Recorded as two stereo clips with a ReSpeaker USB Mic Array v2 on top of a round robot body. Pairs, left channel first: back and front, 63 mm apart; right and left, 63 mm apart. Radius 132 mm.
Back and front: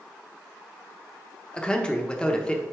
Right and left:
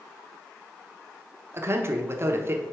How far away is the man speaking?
About 1.1 m.